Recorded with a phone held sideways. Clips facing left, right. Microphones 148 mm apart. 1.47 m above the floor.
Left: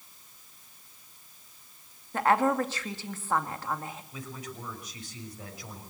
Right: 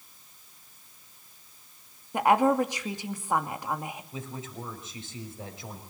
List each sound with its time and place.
2.1 s a woman speaking: 15° right (ahead or behind), 2.5 m
4.1 s a man speaking: 25° right (ahead or behind), 6 m